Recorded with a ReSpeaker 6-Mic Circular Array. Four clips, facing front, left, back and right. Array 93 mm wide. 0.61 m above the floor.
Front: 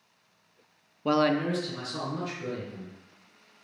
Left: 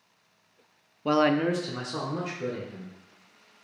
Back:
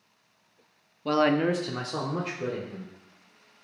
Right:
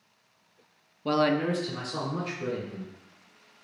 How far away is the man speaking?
About 0.5 m.